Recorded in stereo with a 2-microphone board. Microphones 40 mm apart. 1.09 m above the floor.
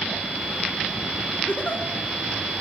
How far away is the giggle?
About 5 m.